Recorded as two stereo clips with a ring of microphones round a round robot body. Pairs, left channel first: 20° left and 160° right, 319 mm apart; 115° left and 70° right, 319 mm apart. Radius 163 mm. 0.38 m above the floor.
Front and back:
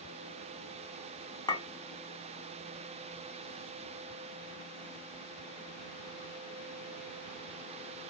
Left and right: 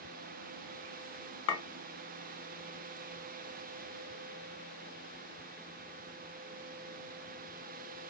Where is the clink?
95° left, 0.8 m.